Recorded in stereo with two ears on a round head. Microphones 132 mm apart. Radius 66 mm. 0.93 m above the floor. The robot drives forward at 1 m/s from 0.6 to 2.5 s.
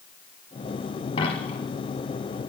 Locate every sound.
1.2 s a dropped coin: 40° left (ahead or behind), 3 m; by 1.6 s 45° left (ahead or behind), 2.5 m